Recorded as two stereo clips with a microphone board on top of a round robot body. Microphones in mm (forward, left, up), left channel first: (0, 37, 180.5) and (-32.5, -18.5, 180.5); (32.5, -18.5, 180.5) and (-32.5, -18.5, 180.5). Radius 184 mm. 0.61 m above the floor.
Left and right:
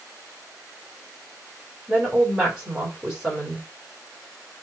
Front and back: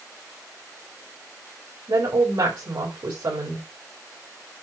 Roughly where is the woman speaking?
Behind.